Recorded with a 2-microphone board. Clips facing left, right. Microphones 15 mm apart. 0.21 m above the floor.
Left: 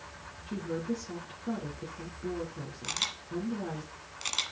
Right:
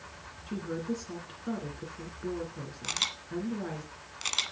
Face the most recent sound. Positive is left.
turn(degrees=-5)  # may be behind; listen again after turning